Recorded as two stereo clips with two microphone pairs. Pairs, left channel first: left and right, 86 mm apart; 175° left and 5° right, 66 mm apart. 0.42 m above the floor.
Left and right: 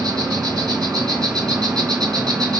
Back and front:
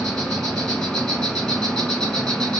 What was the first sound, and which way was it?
An insect, 105° right.